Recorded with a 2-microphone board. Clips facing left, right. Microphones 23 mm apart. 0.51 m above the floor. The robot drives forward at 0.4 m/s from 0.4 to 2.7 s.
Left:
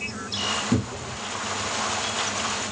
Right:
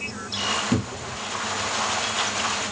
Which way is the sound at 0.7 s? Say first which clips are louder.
Even; 15° right (ahead or behind).